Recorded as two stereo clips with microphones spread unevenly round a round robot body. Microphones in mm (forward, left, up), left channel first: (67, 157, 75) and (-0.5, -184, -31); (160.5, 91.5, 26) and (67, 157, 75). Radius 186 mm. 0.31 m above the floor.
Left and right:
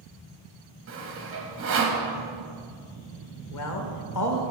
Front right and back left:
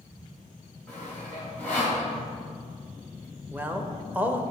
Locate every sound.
0.9 s sawing: 90° right, 1.3 m
3.5 s a man speaking: 45° left, 1.1 m